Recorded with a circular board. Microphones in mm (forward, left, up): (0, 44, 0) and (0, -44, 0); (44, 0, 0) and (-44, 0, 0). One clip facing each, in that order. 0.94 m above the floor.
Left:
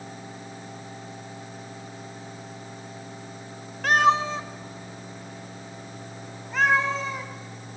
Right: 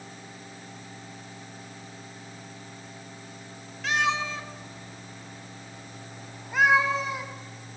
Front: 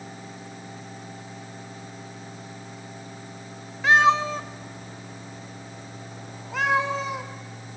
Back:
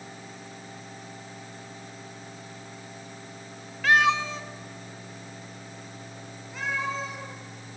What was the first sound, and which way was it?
A cat meowing, 65° left.